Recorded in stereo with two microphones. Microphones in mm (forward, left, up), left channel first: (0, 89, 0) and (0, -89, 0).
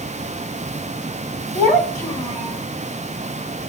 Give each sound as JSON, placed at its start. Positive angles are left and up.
{"t": 1.5, "sound": "a child speaking", "side_deg": -30, "distance_m": 2.5}